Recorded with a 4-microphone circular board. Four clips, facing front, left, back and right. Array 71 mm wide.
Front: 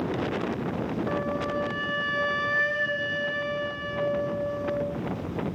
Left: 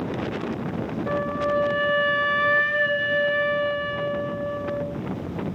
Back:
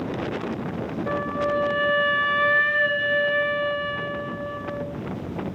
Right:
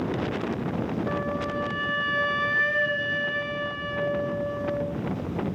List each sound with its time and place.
1.1 s a flute: 150° left, 0.5 m